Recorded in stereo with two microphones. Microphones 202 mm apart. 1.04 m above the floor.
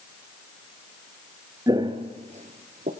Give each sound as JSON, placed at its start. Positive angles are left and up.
{"t": 1.7, "sound": "footsteps", "side_deg": -20, "distance_m": 1.2}